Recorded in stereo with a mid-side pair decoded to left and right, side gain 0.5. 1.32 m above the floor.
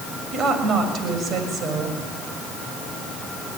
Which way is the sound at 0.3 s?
50° right.